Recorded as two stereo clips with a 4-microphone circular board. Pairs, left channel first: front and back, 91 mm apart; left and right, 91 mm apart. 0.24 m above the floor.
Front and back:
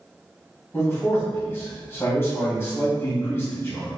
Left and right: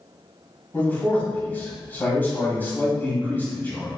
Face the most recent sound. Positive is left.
turn(degrees=40)